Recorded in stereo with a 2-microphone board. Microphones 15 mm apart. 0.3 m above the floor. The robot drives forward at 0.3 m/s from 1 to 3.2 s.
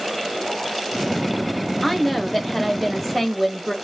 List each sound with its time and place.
1.8 s a woman speaking: 5° left (ahead or behind), 0.9 m